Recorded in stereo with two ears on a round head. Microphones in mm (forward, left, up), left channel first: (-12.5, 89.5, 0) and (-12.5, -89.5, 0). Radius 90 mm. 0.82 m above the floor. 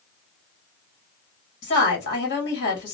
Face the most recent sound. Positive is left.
turn(degrees=60)  # may be behind; listen again after turning